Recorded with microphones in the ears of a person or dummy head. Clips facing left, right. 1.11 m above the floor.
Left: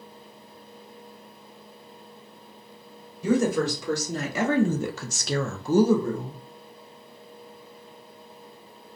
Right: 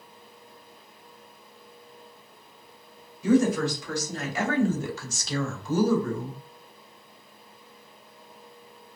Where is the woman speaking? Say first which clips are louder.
Right 1 dB; 75° left (ahead or behind), 1.6 m; by 6.4 s centre (ahead or behind), 0.9 m.